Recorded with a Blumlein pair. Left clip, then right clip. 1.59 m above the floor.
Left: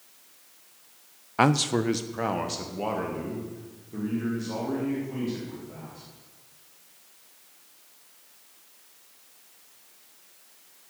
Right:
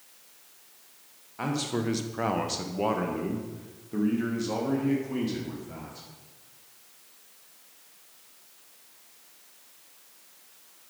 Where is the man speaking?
40° left, 0.6 m; by 6.1 s 20° right, 4.5 m.